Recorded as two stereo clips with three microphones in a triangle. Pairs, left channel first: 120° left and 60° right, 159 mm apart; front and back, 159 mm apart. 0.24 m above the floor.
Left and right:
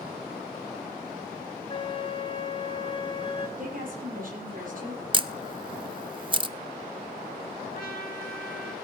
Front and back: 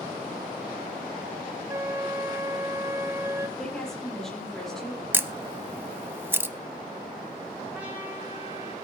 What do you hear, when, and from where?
1.7 s a flute: 125° left, 0.9 m
3.6 s a woman speaking: 85° right, 6.5 m
5.1 s a camera shutter: 110° right, 0.5 m
7.7 s a trumpet: 100° left, 2.5 m